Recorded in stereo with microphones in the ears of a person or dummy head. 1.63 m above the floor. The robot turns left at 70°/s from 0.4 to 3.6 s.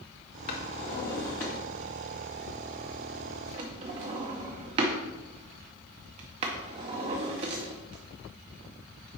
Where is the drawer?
25° left (ahead or behind), 0.7 m; by 9.2 s 25° right (ahead or behind), 0.7 m.